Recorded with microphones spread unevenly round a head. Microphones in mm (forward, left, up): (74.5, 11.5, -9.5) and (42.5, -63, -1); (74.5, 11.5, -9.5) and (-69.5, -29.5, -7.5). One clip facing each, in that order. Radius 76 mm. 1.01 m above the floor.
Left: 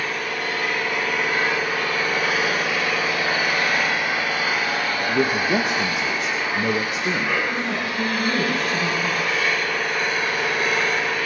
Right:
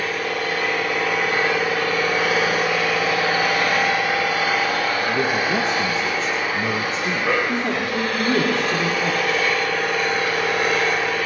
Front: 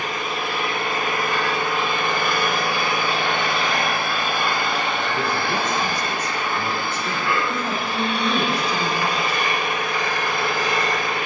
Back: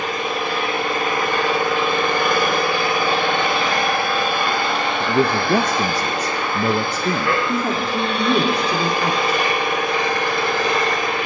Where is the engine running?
140° right, 4.5 m.